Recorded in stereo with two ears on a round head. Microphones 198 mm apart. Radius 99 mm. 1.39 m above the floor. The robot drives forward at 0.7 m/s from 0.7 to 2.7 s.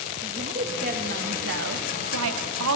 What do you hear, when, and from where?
0.2 s a woman speaking: 35° right (ahead or behind), 1.4 m; by 2.8 s 65° right (ahead or behind), 0.9 m